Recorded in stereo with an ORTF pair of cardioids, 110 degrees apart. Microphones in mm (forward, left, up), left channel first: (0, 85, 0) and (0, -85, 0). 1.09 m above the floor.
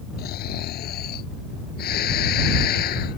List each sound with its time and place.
0.2 s snoring: 70° left